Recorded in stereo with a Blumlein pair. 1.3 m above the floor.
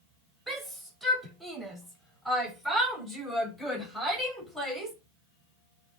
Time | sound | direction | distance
0.5 | a shout | 5° right | 7 m